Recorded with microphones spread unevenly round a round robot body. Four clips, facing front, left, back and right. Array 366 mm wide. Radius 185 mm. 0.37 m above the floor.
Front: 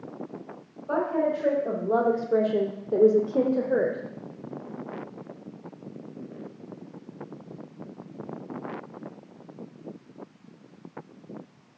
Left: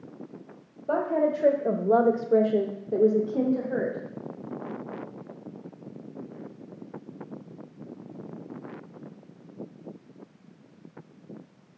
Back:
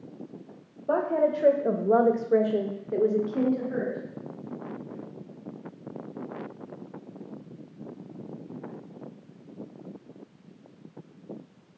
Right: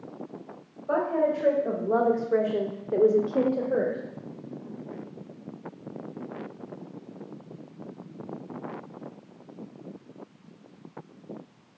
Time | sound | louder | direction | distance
0.9 | a woman speaking | even, back 1 dB | 145° left | 1.7 m